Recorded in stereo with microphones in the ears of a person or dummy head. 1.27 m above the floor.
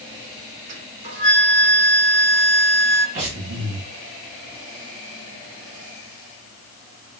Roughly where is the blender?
No blender in this recording.